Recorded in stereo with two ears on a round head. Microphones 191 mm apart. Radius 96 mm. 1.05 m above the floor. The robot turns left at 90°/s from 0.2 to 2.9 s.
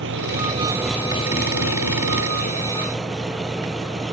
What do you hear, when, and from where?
0.0 s an engine running: 120° right; by 4.1 s straight ahead